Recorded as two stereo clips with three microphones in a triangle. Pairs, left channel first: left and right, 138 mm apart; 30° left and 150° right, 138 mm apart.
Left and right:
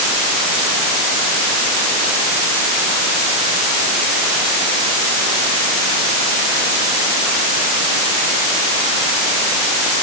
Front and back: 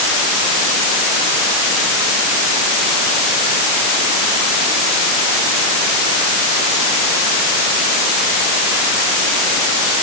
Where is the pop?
No pop in this recording.